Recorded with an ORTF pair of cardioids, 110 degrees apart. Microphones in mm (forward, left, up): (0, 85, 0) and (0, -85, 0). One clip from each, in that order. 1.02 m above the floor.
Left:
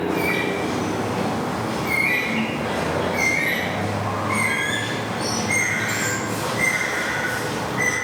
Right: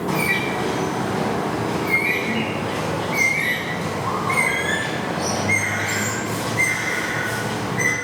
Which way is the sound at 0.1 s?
40° right.